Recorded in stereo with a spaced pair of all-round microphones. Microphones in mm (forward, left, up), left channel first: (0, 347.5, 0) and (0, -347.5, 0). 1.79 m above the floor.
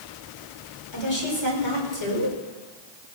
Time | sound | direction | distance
0.9 | a woman speaking | 40° left (ahead or behind) | 6 m